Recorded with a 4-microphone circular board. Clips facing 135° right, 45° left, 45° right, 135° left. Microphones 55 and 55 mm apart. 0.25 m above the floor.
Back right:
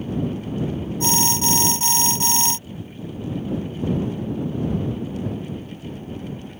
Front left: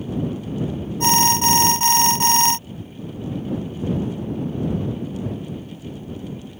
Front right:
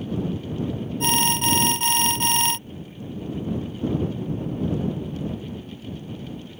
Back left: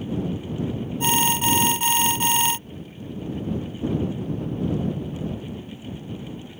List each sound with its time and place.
1.0 s an alarm: 50° left